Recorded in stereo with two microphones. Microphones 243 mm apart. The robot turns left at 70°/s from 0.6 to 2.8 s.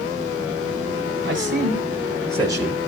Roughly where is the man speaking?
Right.